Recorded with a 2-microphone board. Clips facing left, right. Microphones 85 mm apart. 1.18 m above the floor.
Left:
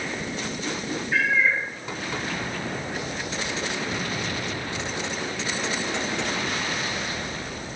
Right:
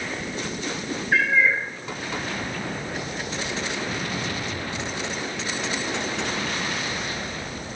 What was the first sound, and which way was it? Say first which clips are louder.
A cat meowing: right 2 dB; 65° right (ahead or behind).